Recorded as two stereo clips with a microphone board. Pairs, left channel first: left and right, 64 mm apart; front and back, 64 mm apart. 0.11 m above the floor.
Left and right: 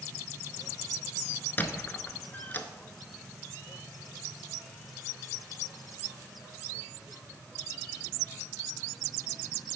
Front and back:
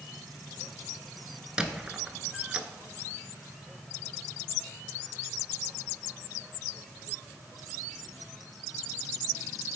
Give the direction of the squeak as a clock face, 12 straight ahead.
8 o'clock.